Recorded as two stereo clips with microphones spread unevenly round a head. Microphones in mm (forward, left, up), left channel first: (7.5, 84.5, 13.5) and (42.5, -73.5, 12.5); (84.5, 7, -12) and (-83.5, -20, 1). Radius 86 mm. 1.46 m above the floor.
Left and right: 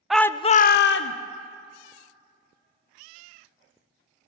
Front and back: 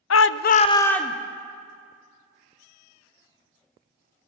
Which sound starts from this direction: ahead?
A shout, at 0.1 s.